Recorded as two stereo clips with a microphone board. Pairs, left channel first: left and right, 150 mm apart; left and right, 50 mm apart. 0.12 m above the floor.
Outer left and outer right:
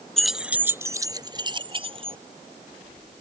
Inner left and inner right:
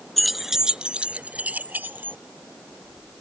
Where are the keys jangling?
5° left (ahead or behind); by 2.2 s 40° right (ahead or behind).